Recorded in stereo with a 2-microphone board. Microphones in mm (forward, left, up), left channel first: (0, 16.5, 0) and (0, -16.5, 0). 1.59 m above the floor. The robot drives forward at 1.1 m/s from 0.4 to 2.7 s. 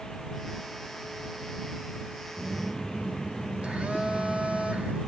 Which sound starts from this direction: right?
A phone buzzing, at 2.4 s.